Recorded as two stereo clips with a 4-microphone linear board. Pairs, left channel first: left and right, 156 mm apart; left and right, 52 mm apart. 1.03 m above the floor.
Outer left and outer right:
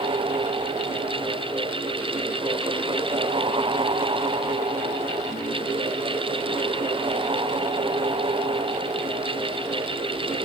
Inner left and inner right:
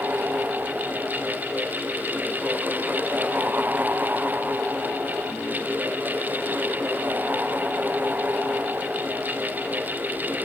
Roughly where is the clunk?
No clunk in this recording.